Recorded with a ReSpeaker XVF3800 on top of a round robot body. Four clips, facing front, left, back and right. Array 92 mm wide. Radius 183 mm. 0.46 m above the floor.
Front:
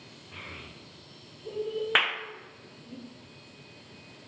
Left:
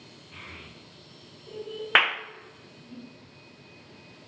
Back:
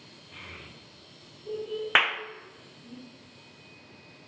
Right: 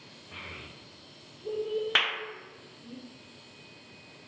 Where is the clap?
115° left, 0.5 m.